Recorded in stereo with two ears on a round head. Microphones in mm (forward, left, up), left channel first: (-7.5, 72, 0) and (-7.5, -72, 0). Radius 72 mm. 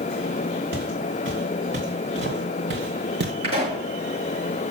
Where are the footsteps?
80° right, 4.5 m; by 3.3 s 65° right (ahead or behind), 2 m.